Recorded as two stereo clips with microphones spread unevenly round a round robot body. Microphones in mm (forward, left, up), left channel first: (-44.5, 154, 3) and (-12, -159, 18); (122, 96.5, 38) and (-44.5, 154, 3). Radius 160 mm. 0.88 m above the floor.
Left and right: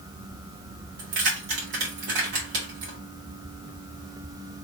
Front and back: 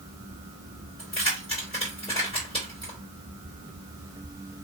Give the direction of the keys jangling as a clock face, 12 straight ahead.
3 o'clock.